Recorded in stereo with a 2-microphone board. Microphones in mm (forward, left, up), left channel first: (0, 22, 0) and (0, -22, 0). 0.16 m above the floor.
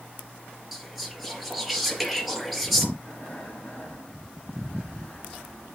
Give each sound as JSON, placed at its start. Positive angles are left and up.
{"t": 0.7, "sound": "whispering", "side_deg": -5, "distance_m": 3.0}
{"t": 3.0, "sound": "breathing", "side_deg": 20, "distance_m": 5.5}